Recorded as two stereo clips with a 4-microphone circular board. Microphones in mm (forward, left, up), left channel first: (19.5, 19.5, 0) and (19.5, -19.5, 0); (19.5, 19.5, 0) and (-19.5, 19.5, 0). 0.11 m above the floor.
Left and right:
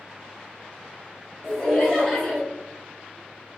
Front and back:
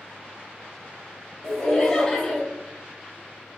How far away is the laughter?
About 1.1 m.